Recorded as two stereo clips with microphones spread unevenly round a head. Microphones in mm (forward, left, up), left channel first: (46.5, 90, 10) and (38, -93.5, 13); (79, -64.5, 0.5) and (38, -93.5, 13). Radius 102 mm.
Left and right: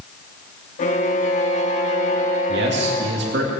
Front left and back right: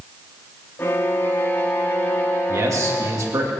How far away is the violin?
About 1.0 m.